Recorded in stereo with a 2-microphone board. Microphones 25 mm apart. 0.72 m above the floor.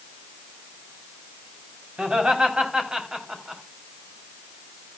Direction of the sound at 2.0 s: 45° right (ahead or behind).